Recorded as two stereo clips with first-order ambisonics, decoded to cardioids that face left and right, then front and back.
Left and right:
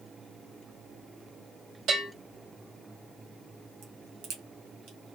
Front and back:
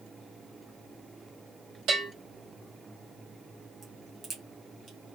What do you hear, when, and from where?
1.9 s a bell: 145° right, 2.5 m
3.8 s a crack: 115° right, 2.0 m